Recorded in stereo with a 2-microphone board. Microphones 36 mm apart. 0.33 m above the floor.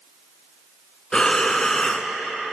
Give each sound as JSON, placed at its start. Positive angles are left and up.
{"t": 1.1, "sound": "breathing", "side_deg": 20, "distance_m": 0.5}